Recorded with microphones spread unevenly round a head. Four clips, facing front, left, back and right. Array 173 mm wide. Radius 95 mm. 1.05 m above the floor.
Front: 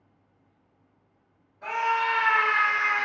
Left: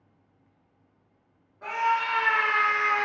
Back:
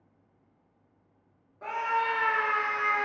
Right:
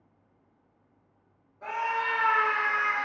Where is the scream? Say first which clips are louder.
Left 4 dB, front 3 dB; straight behind, 1.1 m; by 3.1 s 140° left, 0.6 m.